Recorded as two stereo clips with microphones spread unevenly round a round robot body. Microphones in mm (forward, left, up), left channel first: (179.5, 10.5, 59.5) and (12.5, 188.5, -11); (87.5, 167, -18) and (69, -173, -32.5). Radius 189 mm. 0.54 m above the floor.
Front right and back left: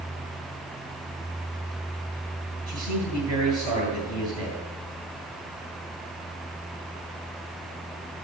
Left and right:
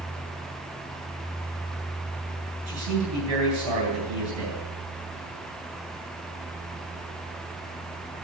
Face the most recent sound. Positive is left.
turn(degrees=-115)